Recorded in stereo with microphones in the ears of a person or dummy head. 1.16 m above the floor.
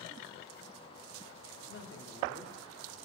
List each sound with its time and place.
1.7 s a man speaking: 70° left (ahead or behind), 2.5 m